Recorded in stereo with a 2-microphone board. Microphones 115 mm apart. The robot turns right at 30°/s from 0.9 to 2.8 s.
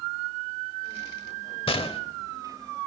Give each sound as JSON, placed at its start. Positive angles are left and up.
{"t": 1.7, "sound": "a gunshot", "side_deg": 55, "distance_m": 1.0}